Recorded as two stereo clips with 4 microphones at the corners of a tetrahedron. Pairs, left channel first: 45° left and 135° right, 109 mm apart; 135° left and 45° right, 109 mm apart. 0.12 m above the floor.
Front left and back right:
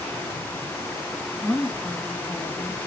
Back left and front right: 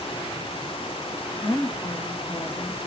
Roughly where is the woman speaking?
Behind left.